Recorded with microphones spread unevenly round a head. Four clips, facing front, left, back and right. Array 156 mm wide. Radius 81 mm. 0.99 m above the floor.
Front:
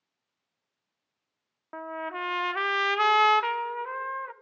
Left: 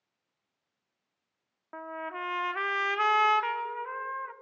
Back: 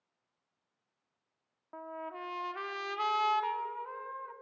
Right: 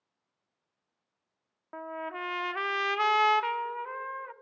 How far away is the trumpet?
About 0.6 m.